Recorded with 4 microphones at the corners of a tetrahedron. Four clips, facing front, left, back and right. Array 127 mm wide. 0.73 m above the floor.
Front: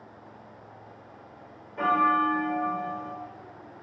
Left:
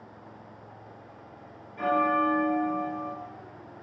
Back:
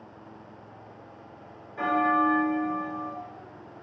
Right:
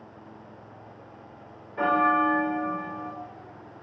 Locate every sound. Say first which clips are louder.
1.8 s a bell: right 2 dB, front 1 dB; 85° right, 2.5 m